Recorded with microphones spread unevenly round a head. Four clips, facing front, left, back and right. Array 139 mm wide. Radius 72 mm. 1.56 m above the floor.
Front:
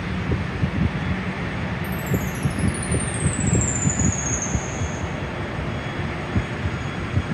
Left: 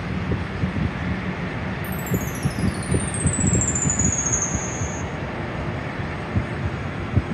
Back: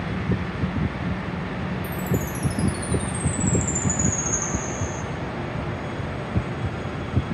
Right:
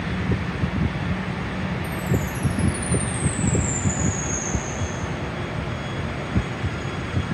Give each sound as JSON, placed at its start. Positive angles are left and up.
{"t": 1.8, "sound": "a chime", "azimuth_deg": 145, "distance_m": 1.5}